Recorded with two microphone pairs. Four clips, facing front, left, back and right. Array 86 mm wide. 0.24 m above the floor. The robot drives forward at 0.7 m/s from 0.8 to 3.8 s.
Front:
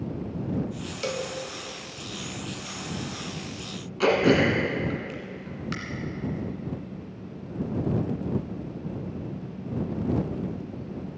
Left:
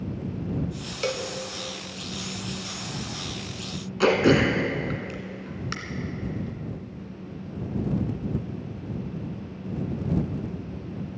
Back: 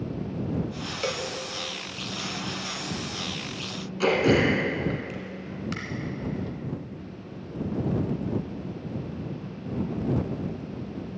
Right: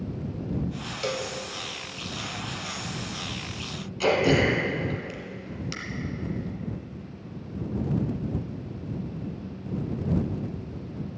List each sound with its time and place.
1.0 s a cowbell: 105° left, 0.9 m; by 1.3 s 130° left, 1.0 m
4.0 s throat clearing: 80° left, 1.7 m